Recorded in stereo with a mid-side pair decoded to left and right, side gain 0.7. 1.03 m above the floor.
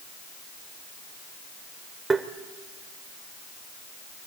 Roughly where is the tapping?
Ahead.